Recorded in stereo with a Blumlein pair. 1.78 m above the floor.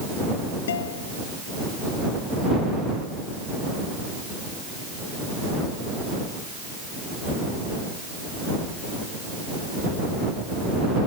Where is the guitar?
60° left.